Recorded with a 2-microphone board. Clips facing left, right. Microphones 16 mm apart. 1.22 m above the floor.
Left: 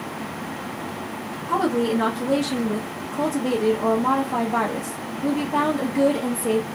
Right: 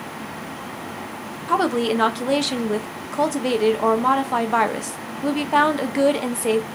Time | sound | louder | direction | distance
1.5 | a woman speaking | right 2 dB | 50° right (ahead or behind) | 0.6 m